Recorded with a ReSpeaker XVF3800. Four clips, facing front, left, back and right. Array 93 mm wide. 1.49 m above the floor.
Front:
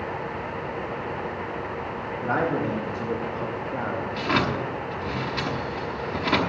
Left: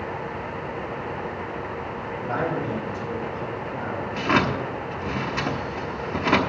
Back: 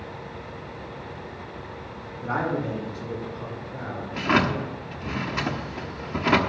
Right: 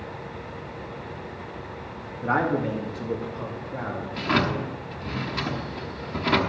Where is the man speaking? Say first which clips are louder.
Right 3 dB, front 2 dB; 60° right, 1.9 m; by 4.0 s 15° right, 2.5 m.